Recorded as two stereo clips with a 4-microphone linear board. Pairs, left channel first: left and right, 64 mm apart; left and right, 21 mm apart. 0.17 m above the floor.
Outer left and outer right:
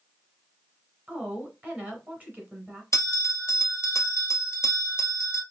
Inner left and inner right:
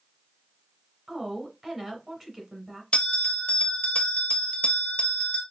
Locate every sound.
1.1 s a woman speaking: 25° right (ahead or behind), 1.7 m
2.9 s a bell: 50° left (ahead or behind), 1.0 m